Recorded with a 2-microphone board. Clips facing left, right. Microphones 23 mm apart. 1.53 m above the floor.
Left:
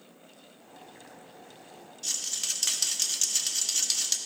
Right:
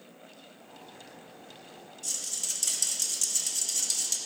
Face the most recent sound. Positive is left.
turn(degrees=40)  # may be behind; listen again after turning